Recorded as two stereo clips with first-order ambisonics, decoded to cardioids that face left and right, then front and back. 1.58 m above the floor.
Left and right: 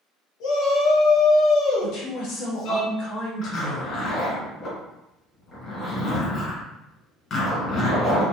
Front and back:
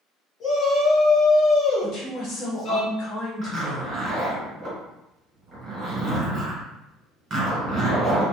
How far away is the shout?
About 1.7 m.